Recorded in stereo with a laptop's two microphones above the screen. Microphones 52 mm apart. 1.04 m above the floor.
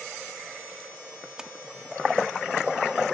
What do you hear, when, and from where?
1.4 s a splash: 15° right (ahead or behind)